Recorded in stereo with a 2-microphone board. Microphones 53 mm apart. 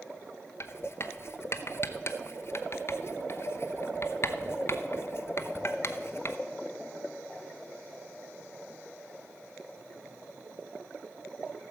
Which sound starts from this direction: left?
Writing, at 0.6 s.